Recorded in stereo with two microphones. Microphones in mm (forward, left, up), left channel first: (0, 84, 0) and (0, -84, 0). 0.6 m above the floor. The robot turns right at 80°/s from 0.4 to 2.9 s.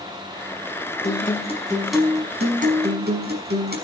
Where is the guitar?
110° left, 5.5 m; by 3.8 s 105° right, 5.5 m.